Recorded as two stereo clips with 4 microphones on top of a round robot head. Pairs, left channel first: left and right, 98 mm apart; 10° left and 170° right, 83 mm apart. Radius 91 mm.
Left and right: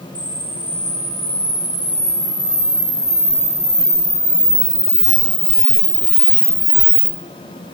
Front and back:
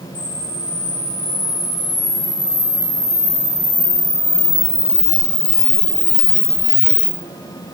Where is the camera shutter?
10° left, 2.5 m.